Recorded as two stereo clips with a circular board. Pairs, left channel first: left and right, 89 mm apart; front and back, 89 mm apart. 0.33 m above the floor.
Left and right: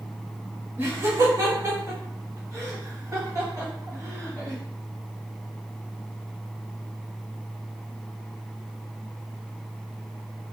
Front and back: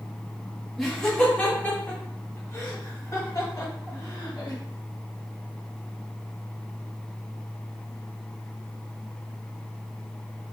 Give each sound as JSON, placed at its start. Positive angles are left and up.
{"t": 0.8, "sound": "laughter", "azimuth_deg": -90, "distance_m": 1.1}